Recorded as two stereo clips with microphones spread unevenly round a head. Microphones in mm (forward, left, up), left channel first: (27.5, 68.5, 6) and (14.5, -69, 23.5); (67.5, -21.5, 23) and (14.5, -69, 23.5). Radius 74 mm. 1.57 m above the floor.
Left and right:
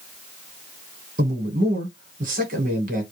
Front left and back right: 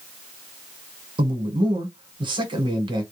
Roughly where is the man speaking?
Behind right.